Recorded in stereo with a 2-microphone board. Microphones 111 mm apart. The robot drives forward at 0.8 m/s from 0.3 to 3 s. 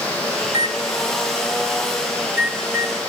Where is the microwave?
45° right (ahead or behind), 0.7 m; by 3.0 s 10° right (ahead or behind), 2.5 m.